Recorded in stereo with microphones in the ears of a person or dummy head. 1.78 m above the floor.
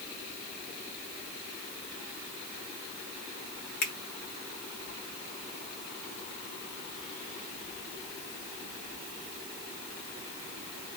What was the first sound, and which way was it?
A finger snap, 60° left (ahead or behind).